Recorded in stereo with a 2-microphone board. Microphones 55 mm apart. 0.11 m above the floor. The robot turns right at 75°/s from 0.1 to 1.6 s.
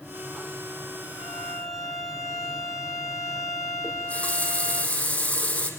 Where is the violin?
60° left, 2.5 m; by 4.8 s 90° left, 2.5 m.